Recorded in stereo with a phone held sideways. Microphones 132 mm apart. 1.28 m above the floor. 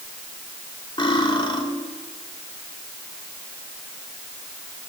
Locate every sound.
1.0 s cutlery clinking: 35° left (ahead or behind), 2.5 m